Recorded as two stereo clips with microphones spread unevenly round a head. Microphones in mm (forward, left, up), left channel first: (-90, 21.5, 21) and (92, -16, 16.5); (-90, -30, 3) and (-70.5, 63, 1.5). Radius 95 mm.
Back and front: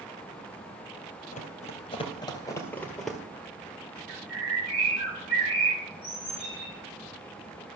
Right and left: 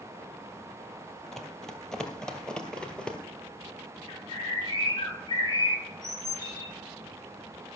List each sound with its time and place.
1.3 s running footsteps: 175° left, 1.9 m; by 3.2 s 95° right, 1.5 m
4.1 s a bird: 150° right, 6 m